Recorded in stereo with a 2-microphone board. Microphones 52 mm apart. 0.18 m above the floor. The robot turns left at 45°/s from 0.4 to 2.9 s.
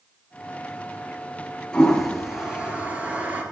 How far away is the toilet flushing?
About 3.5 m.